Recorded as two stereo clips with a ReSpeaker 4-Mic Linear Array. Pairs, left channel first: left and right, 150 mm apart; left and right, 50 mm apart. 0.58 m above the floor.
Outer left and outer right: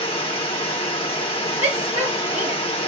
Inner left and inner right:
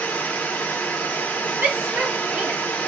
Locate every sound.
0.0 s running water: 40° left (ahead or behind), 0.9 m
1.6 s a shout: 45° right (ahead or behind), 0.9 m